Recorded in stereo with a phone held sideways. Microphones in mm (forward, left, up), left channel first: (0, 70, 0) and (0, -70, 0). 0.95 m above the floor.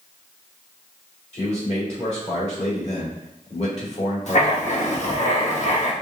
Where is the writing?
55° left (ahead or behind), 0.9 m.